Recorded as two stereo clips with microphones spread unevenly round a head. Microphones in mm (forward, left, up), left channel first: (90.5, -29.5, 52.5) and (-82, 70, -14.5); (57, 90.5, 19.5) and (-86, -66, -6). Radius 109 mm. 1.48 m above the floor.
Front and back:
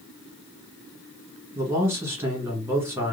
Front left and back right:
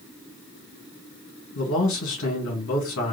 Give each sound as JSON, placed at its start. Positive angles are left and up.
{"t": 1.6, "sound": "a man speaking", "azimuth_deg": 75, "distance_m": 2.5}